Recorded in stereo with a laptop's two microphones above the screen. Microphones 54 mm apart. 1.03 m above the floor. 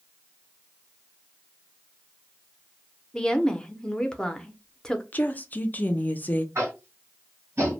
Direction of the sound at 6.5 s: 55° right (ahead or behind).